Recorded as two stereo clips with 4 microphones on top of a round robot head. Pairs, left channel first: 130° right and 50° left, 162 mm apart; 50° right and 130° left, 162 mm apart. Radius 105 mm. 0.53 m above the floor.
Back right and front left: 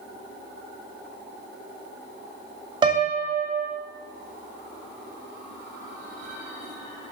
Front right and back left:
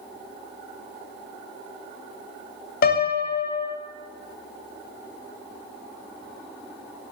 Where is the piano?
15° right, 0.5 m.